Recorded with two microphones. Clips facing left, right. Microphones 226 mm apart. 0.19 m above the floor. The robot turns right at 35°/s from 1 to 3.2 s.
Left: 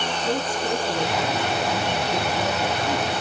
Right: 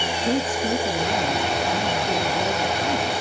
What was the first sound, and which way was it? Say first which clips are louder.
A woman speaking: right 3 dB; 25° right (ahead or behind).